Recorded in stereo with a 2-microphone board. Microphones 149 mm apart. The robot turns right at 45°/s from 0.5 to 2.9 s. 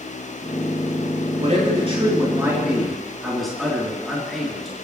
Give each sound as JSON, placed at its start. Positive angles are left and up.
{"t": 1.4, "sound": "a man speaking", "azimuth_deg": -70, "distance_m": 3.0}